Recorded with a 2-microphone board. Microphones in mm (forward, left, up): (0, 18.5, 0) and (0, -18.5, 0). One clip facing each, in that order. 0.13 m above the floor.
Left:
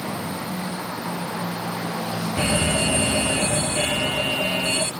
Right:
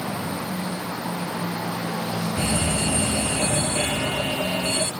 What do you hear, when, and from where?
2.4 s a fire alarm: 25° left (ahead or behind)